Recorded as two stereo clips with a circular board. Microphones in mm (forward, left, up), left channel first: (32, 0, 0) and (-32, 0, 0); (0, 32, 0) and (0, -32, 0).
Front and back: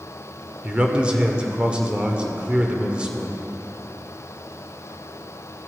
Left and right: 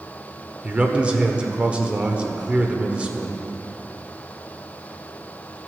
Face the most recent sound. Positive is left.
turn(degrees=-130)